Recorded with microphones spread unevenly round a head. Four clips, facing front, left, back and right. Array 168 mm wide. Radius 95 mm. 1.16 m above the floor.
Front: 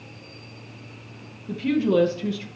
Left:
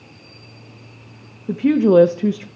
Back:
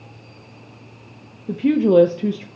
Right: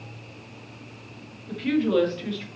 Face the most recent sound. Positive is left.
turn(degrees=125)